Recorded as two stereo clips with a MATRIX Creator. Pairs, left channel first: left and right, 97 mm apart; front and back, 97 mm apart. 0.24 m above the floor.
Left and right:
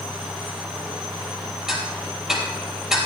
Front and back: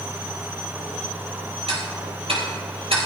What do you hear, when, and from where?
1.7 s ticking: 175° right, 3.5 m